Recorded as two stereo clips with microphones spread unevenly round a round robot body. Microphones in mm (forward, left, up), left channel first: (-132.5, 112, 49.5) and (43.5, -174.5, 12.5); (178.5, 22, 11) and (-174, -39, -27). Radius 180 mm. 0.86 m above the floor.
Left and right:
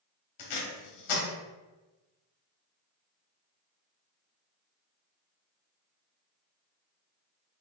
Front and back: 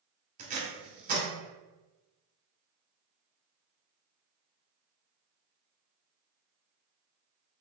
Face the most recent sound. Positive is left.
turn(degrees=120)